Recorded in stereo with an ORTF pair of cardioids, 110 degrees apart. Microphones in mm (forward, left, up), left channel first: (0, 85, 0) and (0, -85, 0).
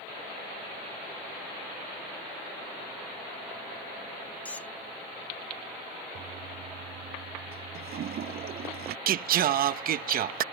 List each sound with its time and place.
4.5 s a squeak: 10° left
6.2 s a toilet flushing: 60° right
9.1 s singing: 55° right